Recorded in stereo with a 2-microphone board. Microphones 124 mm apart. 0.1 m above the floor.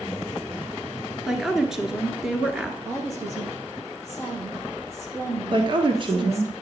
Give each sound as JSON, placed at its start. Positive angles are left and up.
{"t": 1.3, "sound": "a woman speaking", "side_deg": -5, "distance_m": 1.2}
{"t": 2.9, "sound": "a woman speaking", "side_deg": -20, "distance_m": 3.0}
{"t": 5.5, "sound": "a woman speaking", "side_deg": -40, "distance_m": 1.4}